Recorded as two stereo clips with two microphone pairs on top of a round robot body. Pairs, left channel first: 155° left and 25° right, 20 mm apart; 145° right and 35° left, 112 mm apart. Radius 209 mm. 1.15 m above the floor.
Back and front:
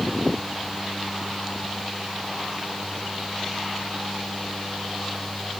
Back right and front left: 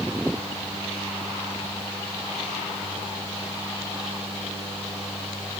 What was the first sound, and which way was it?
Only background noise.